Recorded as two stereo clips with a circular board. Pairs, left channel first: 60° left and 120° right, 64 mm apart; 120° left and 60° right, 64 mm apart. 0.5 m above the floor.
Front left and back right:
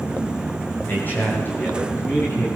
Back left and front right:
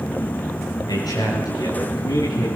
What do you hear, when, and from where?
0.9 s a man speaking: 120° left, 10 m